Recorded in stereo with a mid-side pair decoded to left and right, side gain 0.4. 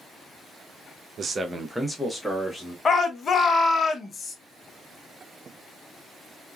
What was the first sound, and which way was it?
A man speaking, 55° right.